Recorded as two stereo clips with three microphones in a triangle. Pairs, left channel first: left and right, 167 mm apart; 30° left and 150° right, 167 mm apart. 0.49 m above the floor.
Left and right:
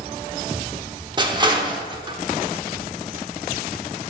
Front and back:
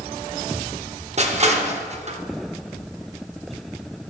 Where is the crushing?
140° right, 0.9 m.